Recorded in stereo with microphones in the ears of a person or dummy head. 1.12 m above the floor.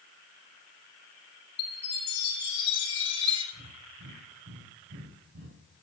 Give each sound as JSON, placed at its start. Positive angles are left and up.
{"t": 1.6, "sound": "a chime", "side_deg": 30, "distance_m": 6.0}
{"t": 3.5, "sound": "breathing", "side_deg": -60, "distance_m": 2.5}